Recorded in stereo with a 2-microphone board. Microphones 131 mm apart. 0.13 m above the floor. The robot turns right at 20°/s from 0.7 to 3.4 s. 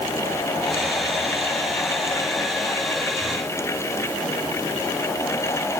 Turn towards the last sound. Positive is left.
No sound to turn to.